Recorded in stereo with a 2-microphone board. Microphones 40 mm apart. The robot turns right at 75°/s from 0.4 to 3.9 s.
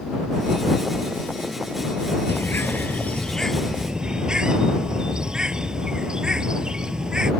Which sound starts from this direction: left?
A bird, at 2.3 s.